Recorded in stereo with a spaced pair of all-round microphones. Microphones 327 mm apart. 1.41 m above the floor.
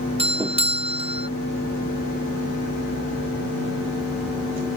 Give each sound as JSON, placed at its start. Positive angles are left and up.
{"t": 0.2, "sound": "a doorbell", "side_deg": -20}